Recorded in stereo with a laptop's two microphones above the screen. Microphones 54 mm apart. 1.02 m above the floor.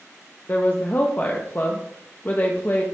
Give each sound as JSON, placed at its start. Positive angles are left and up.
{"t": 0.5, "sound": "a woman speaking", "side_deg": 35, "distance_m": 0.9}